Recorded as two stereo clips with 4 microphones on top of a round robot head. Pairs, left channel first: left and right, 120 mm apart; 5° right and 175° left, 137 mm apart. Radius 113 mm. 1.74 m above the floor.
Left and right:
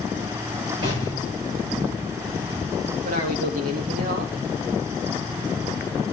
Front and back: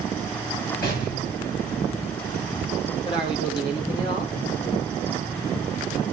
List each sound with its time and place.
0.8 s an explosion: 30° right, 8 m
3.0 s a man speaking: 70° right, 3.5 m